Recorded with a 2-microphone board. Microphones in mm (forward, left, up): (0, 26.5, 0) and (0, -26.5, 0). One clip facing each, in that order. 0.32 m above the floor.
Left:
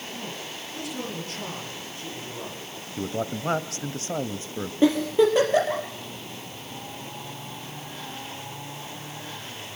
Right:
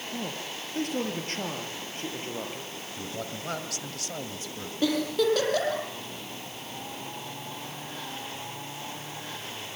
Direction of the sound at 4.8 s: 25° left (ahead or behind).